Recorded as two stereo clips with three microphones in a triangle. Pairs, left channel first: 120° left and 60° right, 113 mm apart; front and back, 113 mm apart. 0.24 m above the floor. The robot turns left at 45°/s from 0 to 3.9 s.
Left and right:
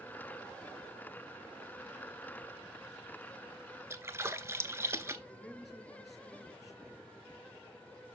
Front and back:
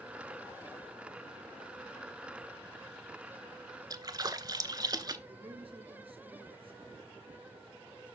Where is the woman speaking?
150° right, 4 m.